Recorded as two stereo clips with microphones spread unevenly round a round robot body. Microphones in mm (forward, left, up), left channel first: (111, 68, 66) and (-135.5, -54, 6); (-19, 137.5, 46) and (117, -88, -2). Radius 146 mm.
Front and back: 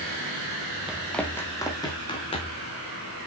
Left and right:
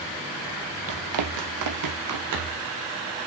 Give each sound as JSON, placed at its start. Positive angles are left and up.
{"t": 0.9, "sound": "running footsteps", "azimuth_deg": -60, "distance_m": 1.1}